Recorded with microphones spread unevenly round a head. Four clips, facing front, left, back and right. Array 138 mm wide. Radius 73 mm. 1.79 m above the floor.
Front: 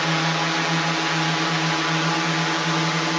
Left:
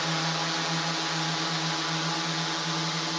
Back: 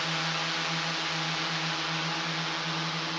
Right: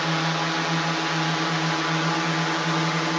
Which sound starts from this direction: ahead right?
A drone, at 0.0 s.